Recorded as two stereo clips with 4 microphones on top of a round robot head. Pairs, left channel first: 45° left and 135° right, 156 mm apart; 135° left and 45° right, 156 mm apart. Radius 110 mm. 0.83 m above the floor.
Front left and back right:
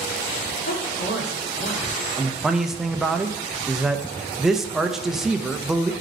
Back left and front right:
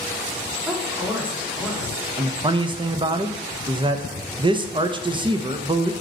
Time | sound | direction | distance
0.7 | a woman speaking | 35° left | 1.9 m
2.2 | a man speaking | 50° right | 0.8 m